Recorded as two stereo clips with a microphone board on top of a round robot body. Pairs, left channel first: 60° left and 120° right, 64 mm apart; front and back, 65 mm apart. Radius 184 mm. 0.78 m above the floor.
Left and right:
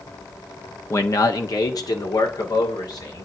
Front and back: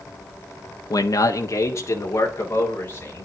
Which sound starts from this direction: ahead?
A man speaking, at 0.9 s.